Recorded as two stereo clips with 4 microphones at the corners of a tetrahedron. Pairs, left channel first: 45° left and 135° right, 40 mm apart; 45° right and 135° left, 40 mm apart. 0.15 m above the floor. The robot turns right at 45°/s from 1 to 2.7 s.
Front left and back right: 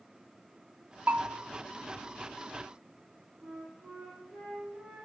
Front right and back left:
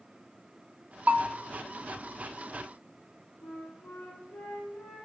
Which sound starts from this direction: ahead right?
A flute, at 3.4 s.